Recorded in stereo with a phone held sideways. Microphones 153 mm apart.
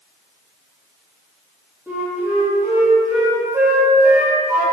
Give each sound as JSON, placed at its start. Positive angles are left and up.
{"t": 1.9, "sound": "a flute", "side_deg": -15, "distance_m": 3.0}